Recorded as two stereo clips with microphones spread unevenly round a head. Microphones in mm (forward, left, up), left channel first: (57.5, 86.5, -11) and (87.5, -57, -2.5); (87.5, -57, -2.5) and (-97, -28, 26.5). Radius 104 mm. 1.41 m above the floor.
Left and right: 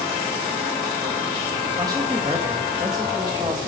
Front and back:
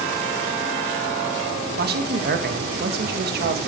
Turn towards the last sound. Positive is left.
turn(degrees=-150)